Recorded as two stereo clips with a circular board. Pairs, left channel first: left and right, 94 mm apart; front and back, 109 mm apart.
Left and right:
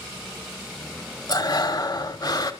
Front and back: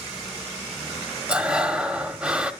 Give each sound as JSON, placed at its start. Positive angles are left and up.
{"t": 1.3, "sound": "breathing", "azimuth_deg": 105, "distance_m": 1.2}